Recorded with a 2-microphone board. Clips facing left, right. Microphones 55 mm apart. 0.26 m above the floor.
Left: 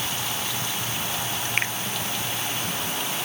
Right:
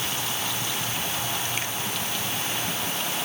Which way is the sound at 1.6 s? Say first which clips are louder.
Left 5 dB; 50° left (ahead or behind).